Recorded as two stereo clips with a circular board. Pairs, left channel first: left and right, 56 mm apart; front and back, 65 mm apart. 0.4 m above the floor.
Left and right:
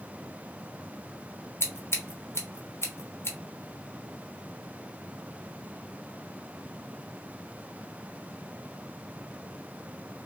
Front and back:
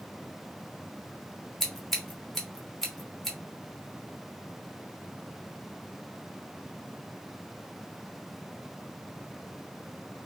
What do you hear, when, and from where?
1.6 s scissors: 85° left, 0.9 m